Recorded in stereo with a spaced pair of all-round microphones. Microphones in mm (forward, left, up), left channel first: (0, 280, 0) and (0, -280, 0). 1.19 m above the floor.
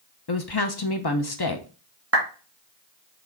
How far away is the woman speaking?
About 0.8 m.